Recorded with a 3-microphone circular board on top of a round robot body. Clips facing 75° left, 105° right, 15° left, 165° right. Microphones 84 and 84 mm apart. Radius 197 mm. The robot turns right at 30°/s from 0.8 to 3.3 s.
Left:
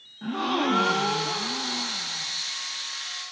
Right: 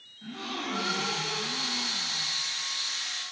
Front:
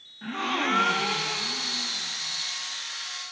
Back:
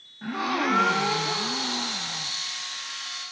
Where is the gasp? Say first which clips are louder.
Left 11 dB, back 2 dB; 115° left, 0.8 m; by 2.3 s 160° left, 0.8 m.